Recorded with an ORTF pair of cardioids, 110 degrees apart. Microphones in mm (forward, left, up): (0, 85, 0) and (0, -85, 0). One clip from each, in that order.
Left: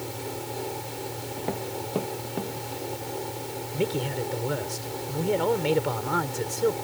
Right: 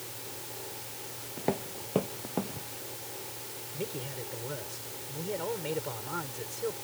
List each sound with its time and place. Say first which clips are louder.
0.0 s a fan: left 9 dB; 65° left
1.4 s footsteps: left 1 dB; 5° right
3.7 s a man speaking: left 10 dB; 55° left